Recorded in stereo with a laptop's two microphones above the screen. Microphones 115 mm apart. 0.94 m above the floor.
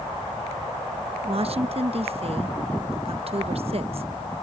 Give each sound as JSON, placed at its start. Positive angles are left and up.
{"t": 1.2, "sound": "a woman speaking", "side_deg": -55}